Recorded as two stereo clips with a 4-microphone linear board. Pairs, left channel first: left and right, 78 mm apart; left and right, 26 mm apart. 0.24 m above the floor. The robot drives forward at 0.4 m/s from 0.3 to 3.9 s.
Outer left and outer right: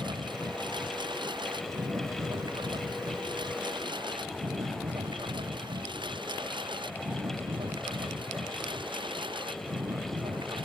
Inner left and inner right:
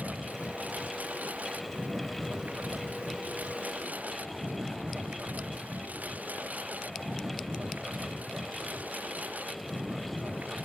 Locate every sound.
0.0 s a lawn mower: 70° right (ahead or behind); by 10.7 s 85° right